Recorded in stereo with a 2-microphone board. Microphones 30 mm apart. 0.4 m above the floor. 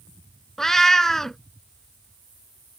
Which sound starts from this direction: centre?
A cat meowing, at 0.6 s.